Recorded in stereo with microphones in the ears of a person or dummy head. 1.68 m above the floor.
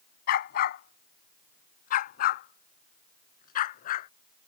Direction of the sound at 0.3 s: 60° left (ahead or behind).